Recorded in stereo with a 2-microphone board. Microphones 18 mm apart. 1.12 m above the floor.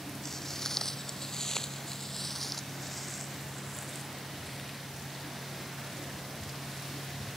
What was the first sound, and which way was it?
Footsteps, 20° left (ahead or behind).